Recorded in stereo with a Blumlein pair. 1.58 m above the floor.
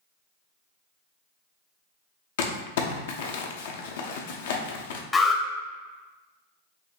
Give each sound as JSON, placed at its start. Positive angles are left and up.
{"t": 2.4, "sound": "crumpling", "azimuth_deg": 55, "distance_m": 0.6}
{"t": 5.1, "sound": "an alarm", "azimuth_deg": 15, "distance_m": 0.8}